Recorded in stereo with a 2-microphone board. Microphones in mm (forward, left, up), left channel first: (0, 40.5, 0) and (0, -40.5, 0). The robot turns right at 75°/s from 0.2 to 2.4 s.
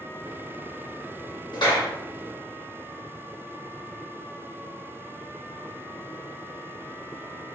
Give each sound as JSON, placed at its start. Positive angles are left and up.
{"t": 1.5, "sound": "a clap", "side_deg": 70, "distance_m": 1.3}